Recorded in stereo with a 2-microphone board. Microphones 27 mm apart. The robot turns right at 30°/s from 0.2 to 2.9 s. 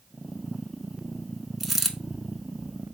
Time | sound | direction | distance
1.6 | a dropped coin | 5° right (ahead or behind) | 0.6 m